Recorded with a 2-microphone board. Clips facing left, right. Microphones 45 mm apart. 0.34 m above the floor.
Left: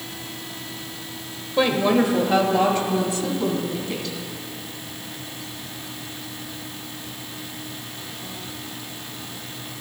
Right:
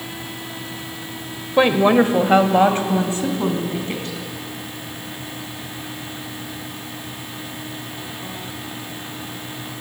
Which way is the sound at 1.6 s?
30° right (ahead or behind).